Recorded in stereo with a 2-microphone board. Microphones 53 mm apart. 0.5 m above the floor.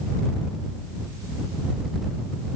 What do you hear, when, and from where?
Only background noise.